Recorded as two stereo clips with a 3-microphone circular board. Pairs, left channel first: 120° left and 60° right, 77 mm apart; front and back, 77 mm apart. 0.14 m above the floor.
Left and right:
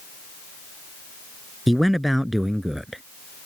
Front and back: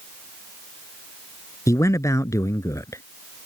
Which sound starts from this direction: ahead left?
A man speaking, at 1.7 s.